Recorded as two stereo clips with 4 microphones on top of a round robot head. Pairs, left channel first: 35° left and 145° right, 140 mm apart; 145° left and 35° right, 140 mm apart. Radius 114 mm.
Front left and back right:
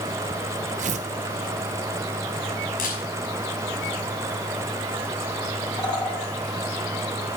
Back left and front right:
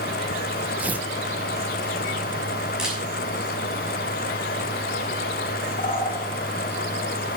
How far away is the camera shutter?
About 6 m.